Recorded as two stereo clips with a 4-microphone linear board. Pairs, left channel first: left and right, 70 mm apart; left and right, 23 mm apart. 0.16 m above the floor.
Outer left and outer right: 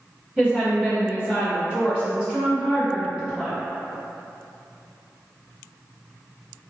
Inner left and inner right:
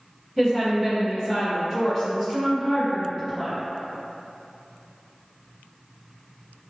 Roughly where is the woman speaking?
Centre.